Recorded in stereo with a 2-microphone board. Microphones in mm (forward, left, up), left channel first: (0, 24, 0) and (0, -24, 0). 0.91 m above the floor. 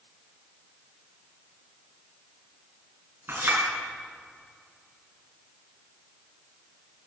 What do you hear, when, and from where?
3.3 s a clink: 50° right (ahead or behind), 5.5 m